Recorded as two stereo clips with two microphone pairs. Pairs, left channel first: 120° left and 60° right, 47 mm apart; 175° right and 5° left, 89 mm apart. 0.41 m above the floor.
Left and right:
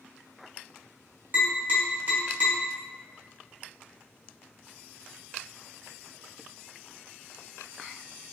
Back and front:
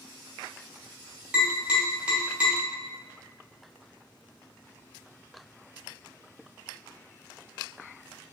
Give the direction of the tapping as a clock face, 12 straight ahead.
2 o'clock.